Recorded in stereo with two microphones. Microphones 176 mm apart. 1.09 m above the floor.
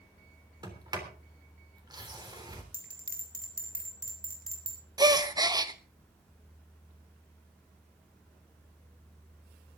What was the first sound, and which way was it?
A sliding door, 25° right (ahead or behind).